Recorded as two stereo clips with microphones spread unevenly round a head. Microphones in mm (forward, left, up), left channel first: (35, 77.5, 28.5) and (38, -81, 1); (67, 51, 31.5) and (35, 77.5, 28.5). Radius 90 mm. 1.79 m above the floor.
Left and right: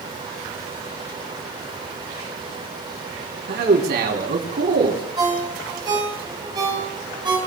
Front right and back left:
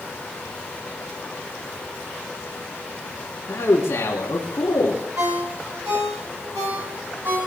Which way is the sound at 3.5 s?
65° right.